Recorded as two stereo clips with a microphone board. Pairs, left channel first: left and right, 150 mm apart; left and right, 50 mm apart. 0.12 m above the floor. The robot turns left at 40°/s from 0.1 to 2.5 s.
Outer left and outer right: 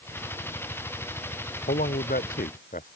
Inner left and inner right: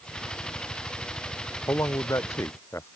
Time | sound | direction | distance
1.7 | a man speaking | 70° left (ahead or behind) | ?